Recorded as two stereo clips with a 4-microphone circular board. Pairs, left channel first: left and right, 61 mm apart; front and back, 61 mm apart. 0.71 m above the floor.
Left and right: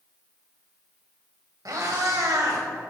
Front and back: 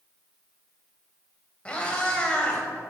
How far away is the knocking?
I don't hear knocking.